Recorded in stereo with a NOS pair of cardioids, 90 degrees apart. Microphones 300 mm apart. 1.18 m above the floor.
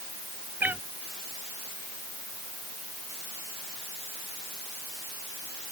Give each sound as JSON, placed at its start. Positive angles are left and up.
{"t": 0.6, "sound": "a cat meowing", "azimuth_deg": -5}